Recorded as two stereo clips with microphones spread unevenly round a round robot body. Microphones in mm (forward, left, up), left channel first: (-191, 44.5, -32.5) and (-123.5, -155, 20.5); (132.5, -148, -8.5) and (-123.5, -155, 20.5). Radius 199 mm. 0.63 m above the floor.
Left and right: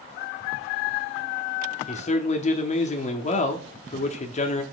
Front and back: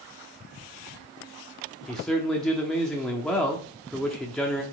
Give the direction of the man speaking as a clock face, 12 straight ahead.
9 o'clock.